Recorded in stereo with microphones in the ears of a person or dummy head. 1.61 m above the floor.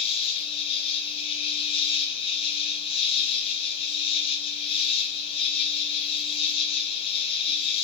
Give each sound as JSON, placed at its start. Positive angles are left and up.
{"t": 0.0, "sound": "an insect", "side_deg": 30, "distance_m": 2.5}